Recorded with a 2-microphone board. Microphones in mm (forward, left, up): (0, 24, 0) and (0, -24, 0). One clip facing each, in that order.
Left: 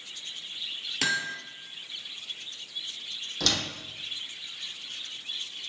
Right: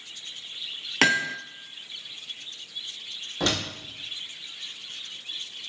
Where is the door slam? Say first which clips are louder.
Right 3 dB; 25° right (ahead or behind), 4 m.